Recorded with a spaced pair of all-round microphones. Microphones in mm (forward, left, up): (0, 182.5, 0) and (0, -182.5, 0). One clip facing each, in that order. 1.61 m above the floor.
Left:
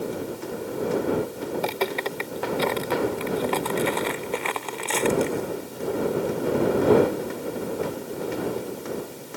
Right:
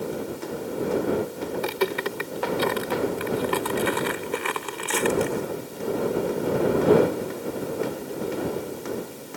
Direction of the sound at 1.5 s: 20° right (ahead or behind).